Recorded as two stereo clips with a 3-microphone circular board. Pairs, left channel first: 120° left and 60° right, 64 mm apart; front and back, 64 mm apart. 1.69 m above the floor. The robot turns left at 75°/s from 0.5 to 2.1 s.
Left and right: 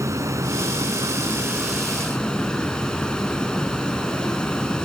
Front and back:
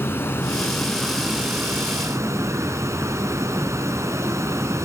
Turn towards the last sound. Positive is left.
turn(degrees=-165)